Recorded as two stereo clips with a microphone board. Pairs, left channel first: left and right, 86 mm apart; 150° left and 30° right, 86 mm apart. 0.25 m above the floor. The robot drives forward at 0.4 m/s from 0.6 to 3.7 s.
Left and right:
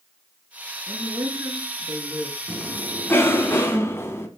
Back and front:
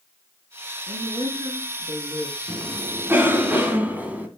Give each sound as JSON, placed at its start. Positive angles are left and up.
{"t": 0.9, "sound": "a woman speaking", "azimuth_deg": -40, "distance_m": 3.0}
{"t": 2.5, "sound": "a cough", "azimuth_deg": 30, "distance_m": 2.5}